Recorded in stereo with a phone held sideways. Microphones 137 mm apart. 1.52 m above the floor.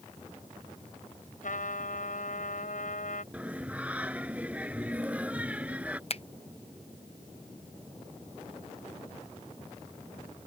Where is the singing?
10° right (ahead or behind).